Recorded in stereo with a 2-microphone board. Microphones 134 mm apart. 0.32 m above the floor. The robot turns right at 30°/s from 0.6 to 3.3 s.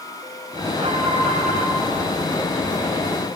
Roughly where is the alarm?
Right.